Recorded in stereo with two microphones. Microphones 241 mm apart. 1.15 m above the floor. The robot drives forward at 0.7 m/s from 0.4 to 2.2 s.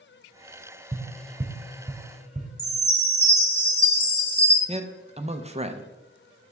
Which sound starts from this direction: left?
A chime, at 2.6 s.